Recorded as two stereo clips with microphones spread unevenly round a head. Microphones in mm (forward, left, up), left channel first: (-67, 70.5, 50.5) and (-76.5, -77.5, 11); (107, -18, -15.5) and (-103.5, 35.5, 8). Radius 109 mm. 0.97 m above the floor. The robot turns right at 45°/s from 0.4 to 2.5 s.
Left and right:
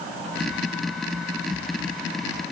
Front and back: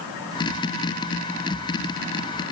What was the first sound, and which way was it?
Only background noise.